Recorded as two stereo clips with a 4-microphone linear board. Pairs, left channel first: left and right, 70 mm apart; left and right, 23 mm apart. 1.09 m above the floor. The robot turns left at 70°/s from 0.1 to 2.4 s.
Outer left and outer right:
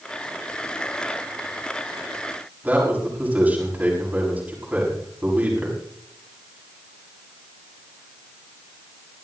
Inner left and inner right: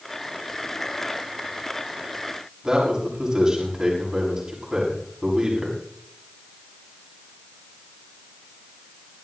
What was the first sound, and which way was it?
A man speaking, 25° right (ahead or behind).